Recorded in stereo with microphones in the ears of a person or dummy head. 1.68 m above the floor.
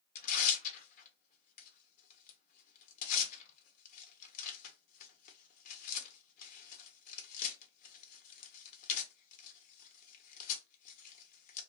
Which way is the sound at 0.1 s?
45° left (ahead or behind).